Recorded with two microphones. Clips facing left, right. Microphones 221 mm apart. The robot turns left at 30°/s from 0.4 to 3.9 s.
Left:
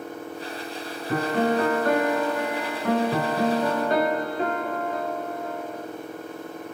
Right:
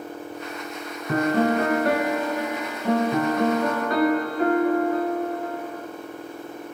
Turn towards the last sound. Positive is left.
turn(degrees=150)